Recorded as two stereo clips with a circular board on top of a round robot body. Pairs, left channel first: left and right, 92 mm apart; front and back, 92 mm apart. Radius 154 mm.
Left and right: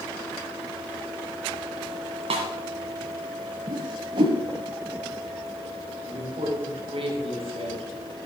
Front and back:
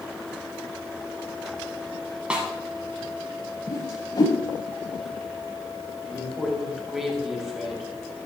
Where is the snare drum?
100° right, 1.0 m.